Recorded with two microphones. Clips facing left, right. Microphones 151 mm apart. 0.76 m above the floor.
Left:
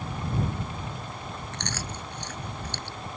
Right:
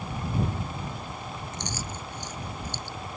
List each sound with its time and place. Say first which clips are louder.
1.5 s chewing: even; 65° left (ahead or behind)